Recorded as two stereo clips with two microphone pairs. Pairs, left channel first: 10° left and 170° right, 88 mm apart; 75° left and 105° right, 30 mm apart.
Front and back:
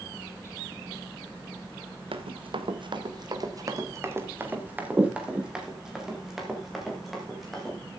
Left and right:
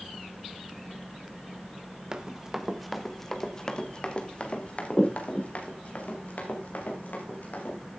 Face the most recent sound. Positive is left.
turn(degrees=100)